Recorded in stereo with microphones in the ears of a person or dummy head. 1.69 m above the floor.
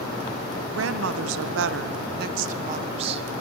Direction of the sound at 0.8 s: 65° right (ahead or behind).